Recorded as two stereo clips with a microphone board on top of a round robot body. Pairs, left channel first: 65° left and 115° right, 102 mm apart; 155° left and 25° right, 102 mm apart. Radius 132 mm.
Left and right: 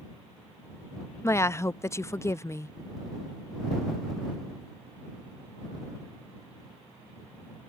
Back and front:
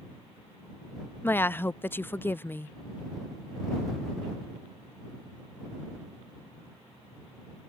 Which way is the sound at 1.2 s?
105° left.